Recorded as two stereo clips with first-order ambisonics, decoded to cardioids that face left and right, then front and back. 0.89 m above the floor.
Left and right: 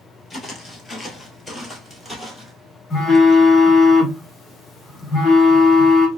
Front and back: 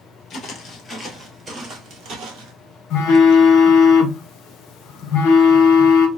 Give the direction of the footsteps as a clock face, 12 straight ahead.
11 o'clock.